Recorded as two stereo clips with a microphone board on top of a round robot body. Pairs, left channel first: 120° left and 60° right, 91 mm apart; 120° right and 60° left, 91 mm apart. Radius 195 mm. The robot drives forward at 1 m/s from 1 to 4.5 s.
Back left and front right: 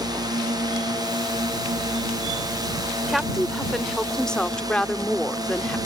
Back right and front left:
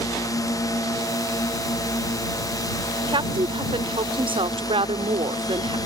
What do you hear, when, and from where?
0.0 s a drone: 85° right; by 5.9 s 90° right
3.1 s a woman speaking: 30° left; by 5.8 s 40° left